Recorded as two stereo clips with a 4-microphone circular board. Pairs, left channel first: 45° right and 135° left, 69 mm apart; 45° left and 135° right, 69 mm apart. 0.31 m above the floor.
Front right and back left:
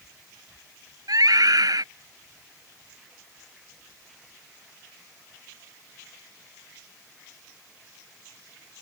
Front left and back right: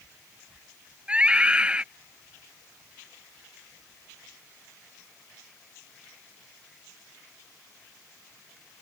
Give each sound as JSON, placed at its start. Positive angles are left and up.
{"t": 1.1, "sound": "a scream", "azimuth_deg": 150}